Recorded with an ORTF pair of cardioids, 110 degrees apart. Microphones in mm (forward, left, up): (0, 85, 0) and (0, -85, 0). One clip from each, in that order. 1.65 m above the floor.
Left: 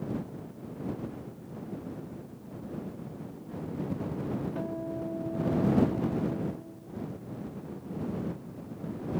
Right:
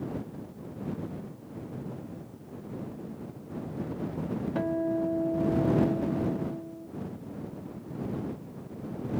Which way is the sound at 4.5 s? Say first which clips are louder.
Right 6 dB; 50° right.